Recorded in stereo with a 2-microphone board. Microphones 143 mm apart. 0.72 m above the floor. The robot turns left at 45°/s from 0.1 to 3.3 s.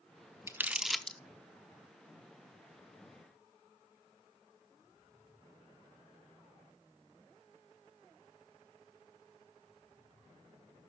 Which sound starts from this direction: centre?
Crumpling, at 0.5 s.